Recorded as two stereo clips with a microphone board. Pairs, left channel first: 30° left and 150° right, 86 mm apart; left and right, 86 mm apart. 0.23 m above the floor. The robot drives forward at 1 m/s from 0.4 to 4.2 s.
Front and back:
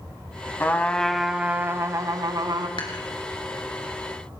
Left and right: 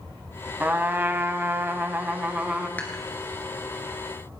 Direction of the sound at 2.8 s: 25° left.